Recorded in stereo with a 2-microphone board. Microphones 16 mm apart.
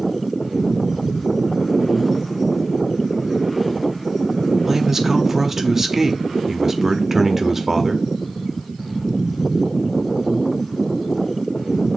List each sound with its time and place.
4.7 s a man speaking: 15° right (ahead or behind), 0.6 m